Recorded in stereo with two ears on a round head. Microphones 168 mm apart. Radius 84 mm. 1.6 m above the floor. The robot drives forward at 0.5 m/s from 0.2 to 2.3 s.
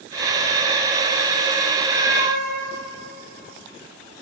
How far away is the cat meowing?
About 7 m.